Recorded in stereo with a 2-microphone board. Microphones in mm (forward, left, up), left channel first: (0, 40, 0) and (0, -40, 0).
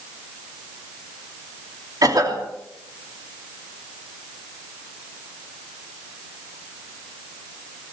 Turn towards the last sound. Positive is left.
turn(degrees=-50)  # may be behind; listen again after turning